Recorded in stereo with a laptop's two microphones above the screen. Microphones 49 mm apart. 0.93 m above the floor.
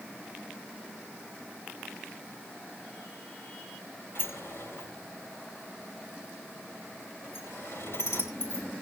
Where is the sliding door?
60° left (ahead or behind), 3 m.